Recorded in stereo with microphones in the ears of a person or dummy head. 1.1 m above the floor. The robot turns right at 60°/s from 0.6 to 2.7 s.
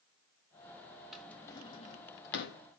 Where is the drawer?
Centre (ahead or behind), 0.6 m; by 2.6 s 60° left (ahead or behind), 0.6 m.